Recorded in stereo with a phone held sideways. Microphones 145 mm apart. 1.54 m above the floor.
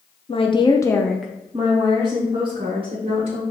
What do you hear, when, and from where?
0.3 s a woman speaking: 40° left (ahead or behind), 0.7 m; by 3.4 s 35° right (ahead or behind), 1.9 m